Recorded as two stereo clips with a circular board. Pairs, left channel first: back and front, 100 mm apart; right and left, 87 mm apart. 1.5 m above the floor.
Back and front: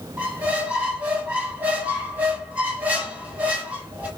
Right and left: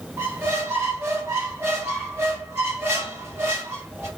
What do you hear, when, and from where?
0.2 s a squeak: 65° left, 1.1 m